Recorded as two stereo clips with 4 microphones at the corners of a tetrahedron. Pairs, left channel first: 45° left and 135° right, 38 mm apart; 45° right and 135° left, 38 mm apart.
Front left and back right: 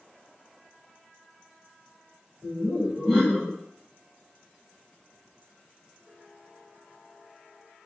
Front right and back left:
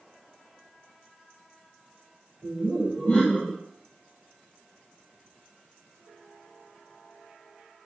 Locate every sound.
2.4 s laughter: 75° right, 1.8 m